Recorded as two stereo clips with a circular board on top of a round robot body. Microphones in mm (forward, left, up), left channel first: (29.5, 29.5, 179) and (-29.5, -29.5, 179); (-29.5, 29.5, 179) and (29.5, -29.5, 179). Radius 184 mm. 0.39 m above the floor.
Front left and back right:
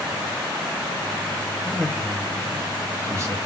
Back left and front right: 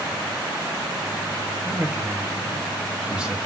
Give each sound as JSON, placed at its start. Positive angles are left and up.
{"t": 1.6, "sound": "a man speaking", "azimuth_deg": -25, "distance_m": 1.4}